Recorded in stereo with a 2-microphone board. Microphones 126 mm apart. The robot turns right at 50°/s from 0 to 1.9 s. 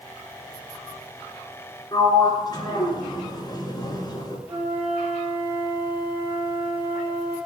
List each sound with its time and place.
1.9 s a sliding door: 35° left (ahead or behind), 3 m
4.5 s a flute: 15° right (ahead or behind), 6 m